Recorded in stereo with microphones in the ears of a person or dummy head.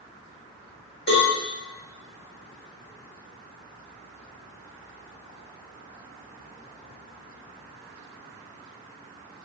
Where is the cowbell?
35° left (ahead or behind), 1.9 m.